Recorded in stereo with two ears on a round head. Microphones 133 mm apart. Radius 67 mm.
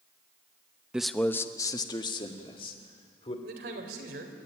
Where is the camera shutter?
I don't hear a camera shutter.